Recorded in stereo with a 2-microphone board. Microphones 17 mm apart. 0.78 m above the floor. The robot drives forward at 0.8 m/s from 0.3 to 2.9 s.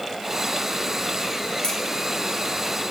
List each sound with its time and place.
1.6 s a crack: 55° left (ahead or behind), 1.9 m